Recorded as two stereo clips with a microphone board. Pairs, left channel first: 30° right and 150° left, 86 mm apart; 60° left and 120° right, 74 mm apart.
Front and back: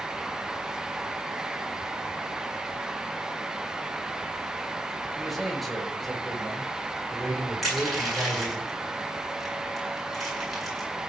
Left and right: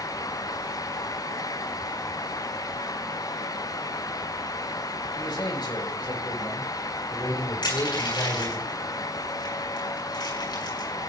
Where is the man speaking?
60° left, 6 m; by 8.6 s 50° left, 4.5 m.